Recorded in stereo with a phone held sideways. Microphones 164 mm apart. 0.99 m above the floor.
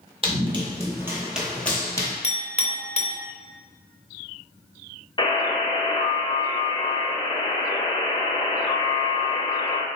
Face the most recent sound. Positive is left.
turn(degrees=30)  # may be behind; listen again after turning